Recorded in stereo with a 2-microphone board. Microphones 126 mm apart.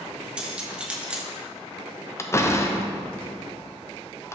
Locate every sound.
0.4 s cutlery clinking: 10° right (ahead or behind), 0.8 m
2.2 s a door slam: 25° left (ahead or behind), 0.5 m